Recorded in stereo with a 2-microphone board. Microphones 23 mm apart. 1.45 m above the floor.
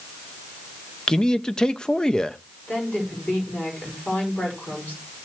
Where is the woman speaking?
90° left, 6 m.